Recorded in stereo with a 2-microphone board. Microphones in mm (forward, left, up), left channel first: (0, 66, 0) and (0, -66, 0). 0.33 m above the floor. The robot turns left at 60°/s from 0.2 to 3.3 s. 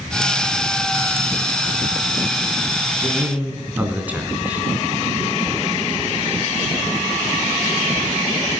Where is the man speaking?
25° right (ahead or behind), 3 m; by 4.7 s 10° right (ahead or behind), 3 m.